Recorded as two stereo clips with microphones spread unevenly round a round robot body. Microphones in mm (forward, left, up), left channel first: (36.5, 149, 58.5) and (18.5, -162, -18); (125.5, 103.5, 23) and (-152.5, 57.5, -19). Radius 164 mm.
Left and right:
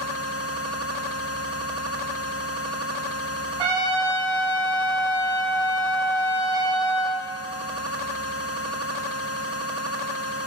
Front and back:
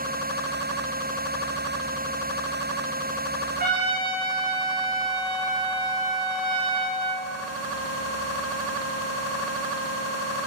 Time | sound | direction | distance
3.6 | a trumpet | 105° right | 1.7 m